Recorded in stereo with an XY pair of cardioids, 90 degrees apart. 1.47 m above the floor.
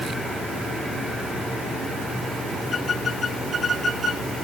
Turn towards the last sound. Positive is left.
No sound to turn to.